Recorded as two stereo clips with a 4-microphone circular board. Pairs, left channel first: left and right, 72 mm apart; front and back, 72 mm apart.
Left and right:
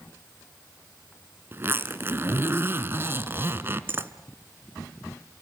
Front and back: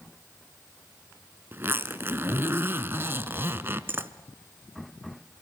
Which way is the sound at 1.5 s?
135° right.